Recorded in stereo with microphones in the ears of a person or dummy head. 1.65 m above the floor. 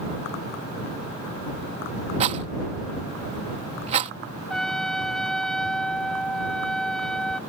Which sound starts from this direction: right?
A rattle, at 2.2 s.